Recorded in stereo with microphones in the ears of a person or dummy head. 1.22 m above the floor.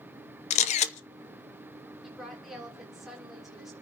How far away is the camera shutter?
About 0.8 m.